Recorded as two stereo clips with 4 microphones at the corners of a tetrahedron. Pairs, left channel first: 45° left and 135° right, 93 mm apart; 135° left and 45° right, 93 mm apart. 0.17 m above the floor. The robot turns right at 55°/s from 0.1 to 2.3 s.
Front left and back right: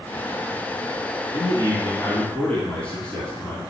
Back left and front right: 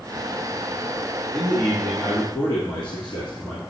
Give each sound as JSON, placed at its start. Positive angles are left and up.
{"t": 1.3, "sound": "a man speaking", "azimuth_deg": 65, "distance_m": 1.8}